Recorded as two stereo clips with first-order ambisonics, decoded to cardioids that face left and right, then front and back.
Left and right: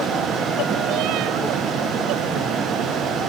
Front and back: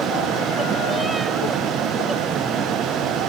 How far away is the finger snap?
No finger snap in this recording.